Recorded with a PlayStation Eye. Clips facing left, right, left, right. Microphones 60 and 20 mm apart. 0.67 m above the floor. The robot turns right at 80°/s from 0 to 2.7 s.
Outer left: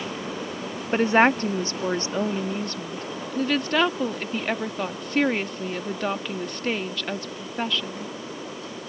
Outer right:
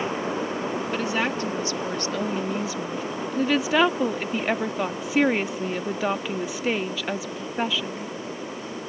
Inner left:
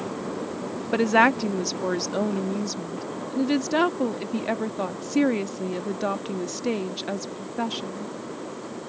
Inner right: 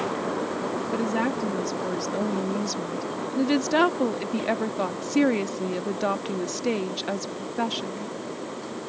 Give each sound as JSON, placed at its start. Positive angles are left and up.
{"t": 0.9, "sound": "a woman speaking", "azimuth_deg": 50}